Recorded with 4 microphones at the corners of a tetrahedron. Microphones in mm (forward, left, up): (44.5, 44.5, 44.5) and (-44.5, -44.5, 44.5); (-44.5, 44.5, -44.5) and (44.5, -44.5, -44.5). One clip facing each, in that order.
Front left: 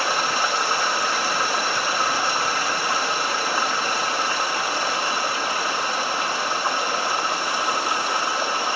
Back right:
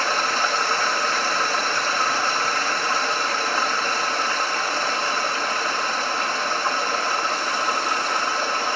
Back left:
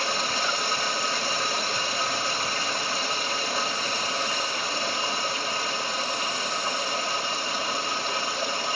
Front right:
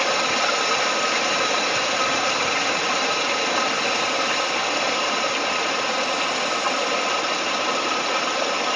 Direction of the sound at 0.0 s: 35° right.